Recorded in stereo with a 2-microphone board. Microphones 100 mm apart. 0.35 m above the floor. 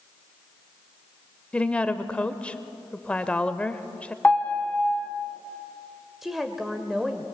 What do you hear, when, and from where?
1.5 s a woman speaking: 10° left (ahead or behind), 0.9 m
4.2 s a piano: 15° left (ahead or behind), 1.5 m
6.2 s a woman speaking: centre (ahead or behind), 1.2 m